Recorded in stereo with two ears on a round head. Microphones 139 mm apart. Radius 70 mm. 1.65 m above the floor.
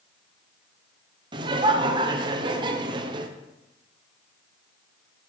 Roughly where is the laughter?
Right.